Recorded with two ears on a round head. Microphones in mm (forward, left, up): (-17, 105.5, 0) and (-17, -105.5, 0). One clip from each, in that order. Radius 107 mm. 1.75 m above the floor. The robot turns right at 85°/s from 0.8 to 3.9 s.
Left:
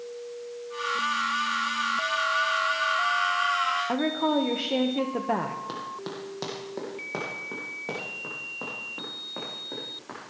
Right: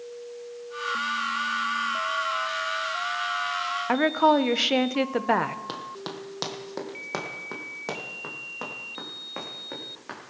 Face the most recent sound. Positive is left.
turn(degrees=-75)  # may be behind; listen again after turning